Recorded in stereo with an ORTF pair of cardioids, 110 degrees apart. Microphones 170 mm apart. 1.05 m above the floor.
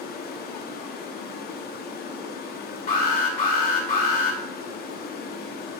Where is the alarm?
60° left, 3 m.